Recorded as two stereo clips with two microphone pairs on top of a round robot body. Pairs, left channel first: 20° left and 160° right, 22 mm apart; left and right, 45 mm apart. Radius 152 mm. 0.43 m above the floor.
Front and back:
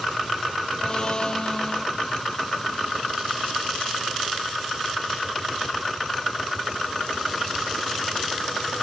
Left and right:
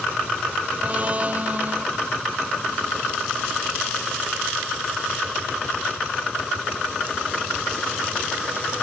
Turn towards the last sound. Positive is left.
turn(degrees=-30)